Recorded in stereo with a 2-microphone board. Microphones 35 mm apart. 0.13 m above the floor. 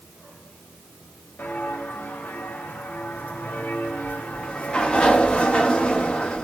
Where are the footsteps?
70° left (ahead or behind), 5 m; by 5.3 s 50° left (ahead or behind), 3 m.